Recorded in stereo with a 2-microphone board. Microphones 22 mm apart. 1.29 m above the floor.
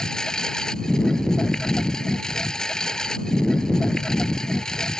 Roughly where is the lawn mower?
Left.